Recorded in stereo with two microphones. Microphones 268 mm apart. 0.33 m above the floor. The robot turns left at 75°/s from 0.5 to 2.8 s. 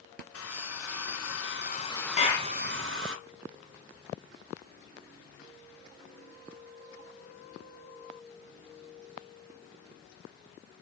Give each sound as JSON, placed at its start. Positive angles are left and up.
{"t": 0.3, "sound": "a hair dryer", "azimuth_deg": 125, "distance_m": 0.9}
{"t": 2.2, "sound": "a clap", "side_deg": 25, "distance_m": 2.0}